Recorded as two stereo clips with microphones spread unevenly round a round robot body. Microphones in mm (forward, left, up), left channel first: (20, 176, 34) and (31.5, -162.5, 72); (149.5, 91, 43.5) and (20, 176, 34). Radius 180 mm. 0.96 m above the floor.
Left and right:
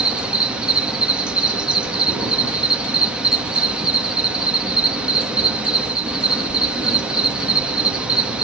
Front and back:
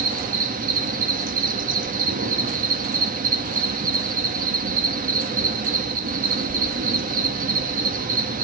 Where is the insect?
Straight behind, 1.5 m.